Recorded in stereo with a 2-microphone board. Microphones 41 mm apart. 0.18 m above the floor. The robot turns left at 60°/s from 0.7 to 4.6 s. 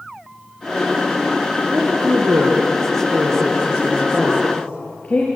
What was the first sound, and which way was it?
A woman speaking, 40° right.